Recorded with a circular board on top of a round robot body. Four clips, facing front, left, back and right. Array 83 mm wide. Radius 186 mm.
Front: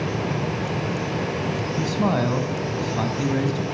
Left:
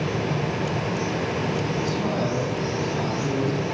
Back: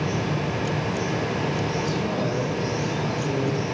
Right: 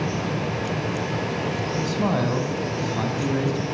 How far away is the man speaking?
About 4.5 m.